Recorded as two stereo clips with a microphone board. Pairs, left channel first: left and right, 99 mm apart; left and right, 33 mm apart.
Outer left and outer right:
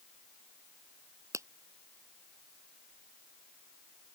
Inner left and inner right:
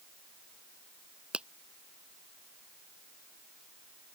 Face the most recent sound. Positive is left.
turn(degrees=-30)  # may be behind; listen again after turning